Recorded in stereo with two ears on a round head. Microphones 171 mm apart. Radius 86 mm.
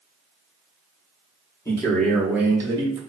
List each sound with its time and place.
1.6 s a man speaking: 15° left (ahead or behind), 0.8 m; by 3.0 s 30° right (ahead or behind), 0.8 m